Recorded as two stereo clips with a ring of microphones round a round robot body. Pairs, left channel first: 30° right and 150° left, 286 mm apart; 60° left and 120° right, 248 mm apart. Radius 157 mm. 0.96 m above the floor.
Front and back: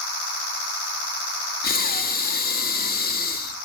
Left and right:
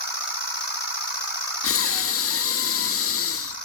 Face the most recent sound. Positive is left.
turn(degrees=30)